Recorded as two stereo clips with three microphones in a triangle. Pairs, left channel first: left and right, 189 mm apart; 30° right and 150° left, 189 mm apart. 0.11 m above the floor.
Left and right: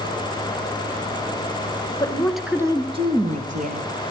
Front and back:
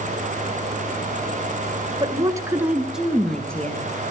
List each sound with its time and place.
2.0 s a woman speaking: 135° left, 1.4 m; by 3.9 s 110° right, 2.5 m